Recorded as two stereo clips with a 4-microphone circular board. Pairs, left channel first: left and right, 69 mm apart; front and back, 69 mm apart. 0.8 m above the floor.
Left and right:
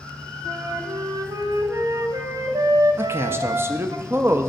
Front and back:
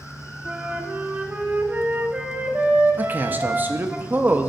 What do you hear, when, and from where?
0.5 s a flute: 115° right, 0.6 m
3.0 s a man speaking: 130° right, 0.5 m